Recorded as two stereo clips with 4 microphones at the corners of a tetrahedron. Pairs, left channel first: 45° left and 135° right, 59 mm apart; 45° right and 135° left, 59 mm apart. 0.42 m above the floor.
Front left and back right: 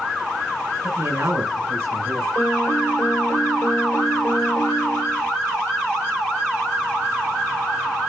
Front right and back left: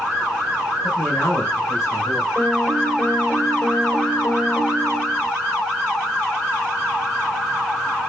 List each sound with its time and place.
0.8 s a man speaking: 90° right, 6 m
2.4 s a piano: 15° left, 1.2 m